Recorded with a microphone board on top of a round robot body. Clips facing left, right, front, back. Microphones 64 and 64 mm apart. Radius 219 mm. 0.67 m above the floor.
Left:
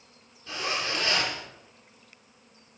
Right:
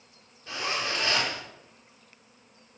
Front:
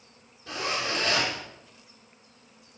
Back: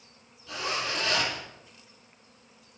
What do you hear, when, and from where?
0.5 s a zipper: 25° right, 8 m